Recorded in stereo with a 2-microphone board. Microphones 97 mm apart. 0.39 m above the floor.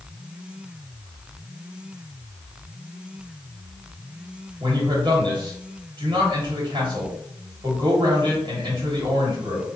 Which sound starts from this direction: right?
A man speaking, at 4.6 s.